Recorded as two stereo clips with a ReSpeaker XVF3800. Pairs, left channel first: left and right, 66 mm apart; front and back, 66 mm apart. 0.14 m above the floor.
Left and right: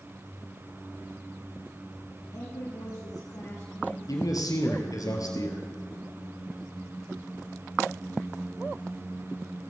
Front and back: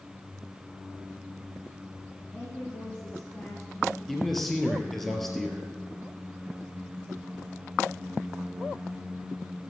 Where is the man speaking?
85° left, 2.5 m.